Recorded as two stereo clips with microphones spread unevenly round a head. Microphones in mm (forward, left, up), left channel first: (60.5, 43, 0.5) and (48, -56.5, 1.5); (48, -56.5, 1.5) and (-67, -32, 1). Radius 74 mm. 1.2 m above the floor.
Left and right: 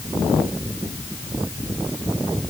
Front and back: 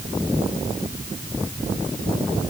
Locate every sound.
Only background noise.